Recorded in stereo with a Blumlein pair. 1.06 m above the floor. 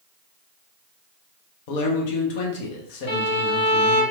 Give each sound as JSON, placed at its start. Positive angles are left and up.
{"t": 1.7, "sound": "a man speaking", "azimuth_deg": 50, "distance_m": 0.8}
{"t": 3.1, "sound": "a violin", "azimuth_deg": 50, "distance_m": 1.9}